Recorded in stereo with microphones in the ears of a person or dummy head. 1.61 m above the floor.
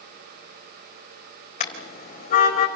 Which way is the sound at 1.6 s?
40° left (ahead or behind).